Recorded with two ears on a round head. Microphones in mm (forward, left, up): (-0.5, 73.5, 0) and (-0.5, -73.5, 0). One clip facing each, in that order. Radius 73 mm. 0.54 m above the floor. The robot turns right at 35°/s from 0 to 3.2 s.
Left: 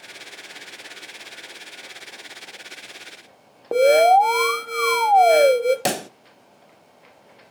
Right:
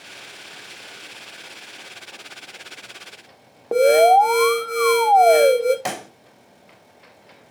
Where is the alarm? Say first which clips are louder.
Right 1 dB; centre (ahead or behind), 1.4 m.